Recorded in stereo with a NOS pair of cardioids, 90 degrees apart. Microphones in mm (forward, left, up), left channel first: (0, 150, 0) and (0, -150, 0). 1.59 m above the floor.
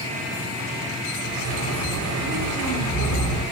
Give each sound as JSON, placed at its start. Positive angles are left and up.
{"t": 1.2, "sound": "a bird", "azimuth_deg": -70, "distance_m": 7.0}